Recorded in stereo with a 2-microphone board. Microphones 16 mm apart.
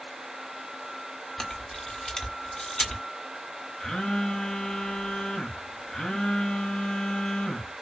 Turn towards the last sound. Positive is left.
turn(degrees=55)  # may be behind; listen again after turning